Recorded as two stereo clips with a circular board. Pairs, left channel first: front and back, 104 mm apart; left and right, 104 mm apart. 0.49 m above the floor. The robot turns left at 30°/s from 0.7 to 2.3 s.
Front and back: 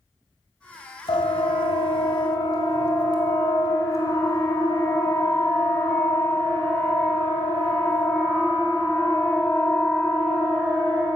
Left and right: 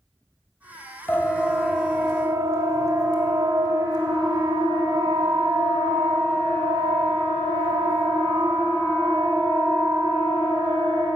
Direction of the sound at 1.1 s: 25° left.